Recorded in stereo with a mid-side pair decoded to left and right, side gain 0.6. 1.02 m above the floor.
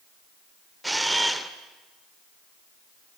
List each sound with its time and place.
0.8 s a camera shutter: 10° right, 2 m